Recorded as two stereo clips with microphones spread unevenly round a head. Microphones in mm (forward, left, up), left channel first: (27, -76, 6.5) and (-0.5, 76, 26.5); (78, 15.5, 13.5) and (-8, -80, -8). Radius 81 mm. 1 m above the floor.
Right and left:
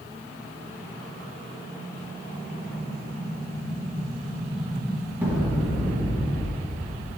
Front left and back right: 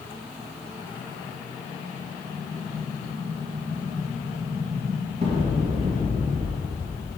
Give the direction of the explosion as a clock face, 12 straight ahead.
6 o'clock.